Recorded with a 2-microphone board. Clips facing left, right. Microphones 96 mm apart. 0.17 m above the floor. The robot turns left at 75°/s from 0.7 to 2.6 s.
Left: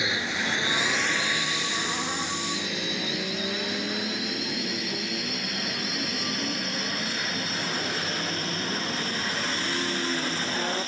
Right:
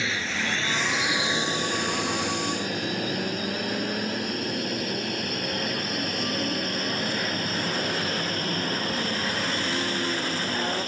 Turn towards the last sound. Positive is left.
turn(degrees=-50)  # may be behind; listen again after turning